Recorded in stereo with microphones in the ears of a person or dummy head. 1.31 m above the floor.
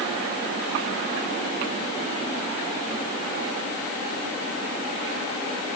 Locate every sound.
Only background noise.